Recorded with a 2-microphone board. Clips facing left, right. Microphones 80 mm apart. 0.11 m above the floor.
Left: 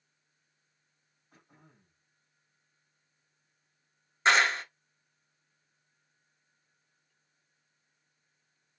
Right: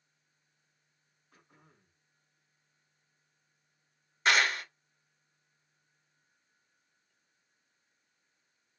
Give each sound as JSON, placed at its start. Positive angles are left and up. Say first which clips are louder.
{"t": 1.3, "sound": "throat clearing", "louder": "left 2 dB", "side_deg": 35, "distance_m": 3.0}
{"t": 4.2, "sound": "a clap", "louder": "left 3 dB", "side_deg": 25, "distance_m": 1.0}